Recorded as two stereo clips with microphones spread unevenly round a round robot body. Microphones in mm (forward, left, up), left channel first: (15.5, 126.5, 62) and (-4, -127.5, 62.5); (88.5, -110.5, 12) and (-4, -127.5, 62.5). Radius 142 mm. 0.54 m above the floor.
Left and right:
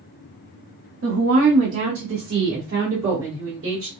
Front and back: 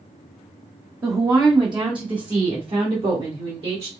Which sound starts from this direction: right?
A woman speaking, at 1.0 s.